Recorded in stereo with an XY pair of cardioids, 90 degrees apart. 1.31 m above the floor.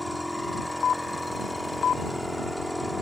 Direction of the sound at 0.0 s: Straight ahead.